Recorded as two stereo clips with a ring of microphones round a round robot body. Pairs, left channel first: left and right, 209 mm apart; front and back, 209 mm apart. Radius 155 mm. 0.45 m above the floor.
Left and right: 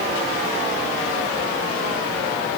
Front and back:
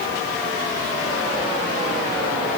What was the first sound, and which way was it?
Only background noise.